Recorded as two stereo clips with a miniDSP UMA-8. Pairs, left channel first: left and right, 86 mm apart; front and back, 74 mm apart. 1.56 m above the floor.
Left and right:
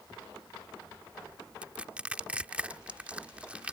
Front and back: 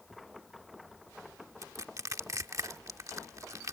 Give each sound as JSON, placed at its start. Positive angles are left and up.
{"t": 1.6, "sound": "crushing", "azimuth_deg": -160}